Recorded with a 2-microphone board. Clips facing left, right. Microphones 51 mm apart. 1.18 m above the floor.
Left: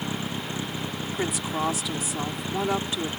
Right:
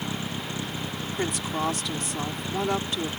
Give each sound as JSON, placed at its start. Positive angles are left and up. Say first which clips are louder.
{"t": 0.0, "sound": "a vehicle", "louder": "left 1 dB", "side_deg": 25}
{"t": 1.2, "sound": "a woman speaking", "louder": "even", "side_deg": 5}